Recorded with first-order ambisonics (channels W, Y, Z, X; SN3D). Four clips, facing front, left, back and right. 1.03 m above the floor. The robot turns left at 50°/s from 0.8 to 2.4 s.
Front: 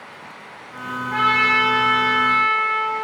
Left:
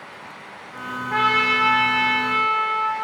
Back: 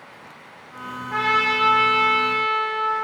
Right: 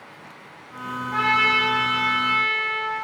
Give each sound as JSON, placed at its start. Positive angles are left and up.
{"t": 1.1, "sound": "a trumpet", "azimuth_deg": 100, "distance_m": 0.8}